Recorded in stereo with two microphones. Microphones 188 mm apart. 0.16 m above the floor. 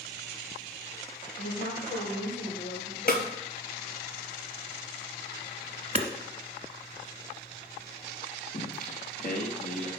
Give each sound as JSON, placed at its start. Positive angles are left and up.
{"t": 1.4, "sound": "a woman speaking", "side_deg": 75, "distance_m": 3.5}
{"t": 3.1, "sound": "a snare drum", "side_deg": 55, "distance_m": 1.1}
{"t": 6.0, "sound": "hammering", "side_deg": -35, "distance_m": 1.1}
{"t": 8.5, "sound": "singing", "side_deg": 50, "distance_m": 2.5}